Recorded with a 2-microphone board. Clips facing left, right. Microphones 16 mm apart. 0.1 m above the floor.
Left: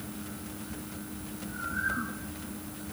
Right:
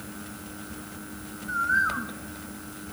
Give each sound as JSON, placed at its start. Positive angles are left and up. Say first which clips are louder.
{"t": 1.5, "sound": "a bird", "louder": "right 9 dB", "side_deg": -70, "distance_m": 3.0}